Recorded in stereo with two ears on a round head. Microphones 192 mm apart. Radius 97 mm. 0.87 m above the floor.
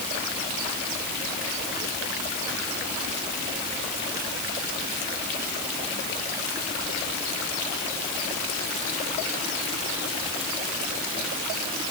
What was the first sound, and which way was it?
Only background noise.